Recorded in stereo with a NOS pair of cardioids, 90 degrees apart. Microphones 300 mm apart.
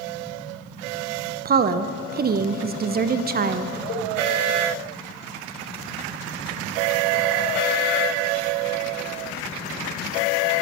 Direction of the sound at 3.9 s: 50° left.